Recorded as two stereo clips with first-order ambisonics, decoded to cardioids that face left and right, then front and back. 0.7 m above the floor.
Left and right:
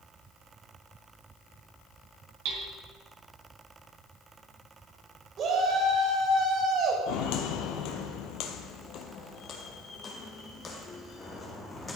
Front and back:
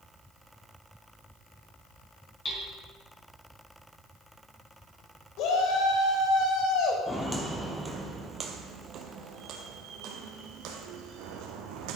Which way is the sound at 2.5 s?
65° right.